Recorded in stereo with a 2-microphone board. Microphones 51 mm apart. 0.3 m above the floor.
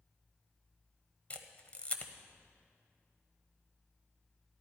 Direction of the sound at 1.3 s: 30° left (ahead or behind).